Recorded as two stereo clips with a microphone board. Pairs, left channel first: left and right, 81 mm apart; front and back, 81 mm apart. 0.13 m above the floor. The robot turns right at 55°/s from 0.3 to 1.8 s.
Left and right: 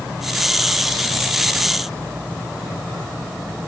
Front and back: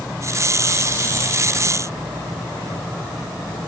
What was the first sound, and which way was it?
Only background noise.